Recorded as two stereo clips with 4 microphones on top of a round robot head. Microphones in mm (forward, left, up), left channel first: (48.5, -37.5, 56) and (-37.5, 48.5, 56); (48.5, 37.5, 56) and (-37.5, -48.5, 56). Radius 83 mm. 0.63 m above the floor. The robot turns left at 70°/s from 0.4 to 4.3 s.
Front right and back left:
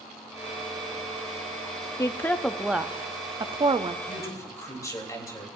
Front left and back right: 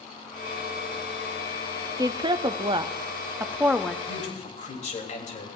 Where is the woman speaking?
95° right, 0.8 m; by 4.0 s 130° left, 0.8 m.